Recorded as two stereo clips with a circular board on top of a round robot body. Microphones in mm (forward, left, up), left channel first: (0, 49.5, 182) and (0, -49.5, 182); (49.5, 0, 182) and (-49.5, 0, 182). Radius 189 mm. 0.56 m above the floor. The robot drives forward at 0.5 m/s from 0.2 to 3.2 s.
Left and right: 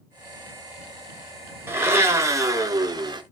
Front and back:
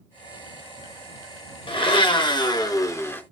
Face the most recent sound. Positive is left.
turn(degrees=-65)